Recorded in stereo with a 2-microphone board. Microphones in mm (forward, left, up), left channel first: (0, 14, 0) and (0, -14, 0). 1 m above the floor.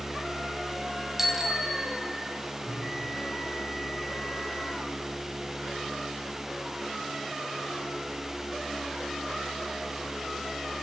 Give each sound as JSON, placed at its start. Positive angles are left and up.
{"t": 1.2, "sound": "a bicycle bell", "side_deg": -10, "distance_m": 4.5}
{"t": 2.6, "sound": "a bell", "side_deg": -15, "distance_m": 10.0}